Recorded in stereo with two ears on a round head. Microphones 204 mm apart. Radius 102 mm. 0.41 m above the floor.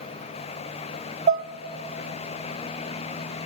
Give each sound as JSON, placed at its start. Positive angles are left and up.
{"t": 1.3, "sound": "dishes clattering", "side_deg": -30, "distance_m": 0.5}